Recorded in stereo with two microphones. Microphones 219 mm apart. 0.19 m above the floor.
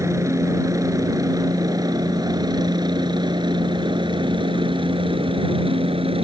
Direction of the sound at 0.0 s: 15° right (ahead or behind).